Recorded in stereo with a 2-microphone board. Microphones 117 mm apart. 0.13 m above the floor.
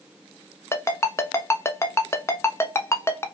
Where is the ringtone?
25° left (ahead or behind), 0.5 m.